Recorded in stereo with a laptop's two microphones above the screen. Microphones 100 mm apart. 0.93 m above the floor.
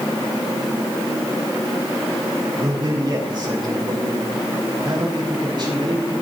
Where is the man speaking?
45° right (ahead or behind), 6 m.